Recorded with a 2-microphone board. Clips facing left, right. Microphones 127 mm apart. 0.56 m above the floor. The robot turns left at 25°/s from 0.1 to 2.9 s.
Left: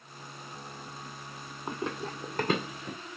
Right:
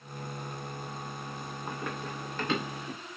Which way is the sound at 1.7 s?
20° left (ahead or behind).